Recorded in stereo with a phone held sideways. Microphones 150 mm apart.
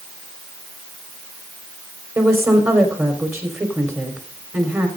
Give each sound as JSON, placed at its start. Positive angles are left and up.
{"t": 2.1, "sound": "a woman speaking", "side_deg": -20, "distance_m": 4.0}